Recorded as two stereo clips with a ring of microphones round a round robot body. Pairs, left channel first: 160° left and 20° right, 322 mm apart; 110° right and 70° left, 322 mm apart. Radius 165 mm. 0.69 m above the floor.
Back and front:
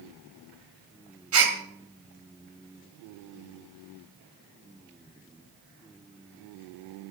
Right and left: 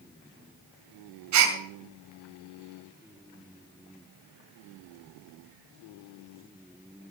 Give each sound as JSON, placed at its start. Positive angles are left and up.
{"t": 1.3, "sound": "a gasp", "azimuth_deg": 25, "distance_m": 2.5}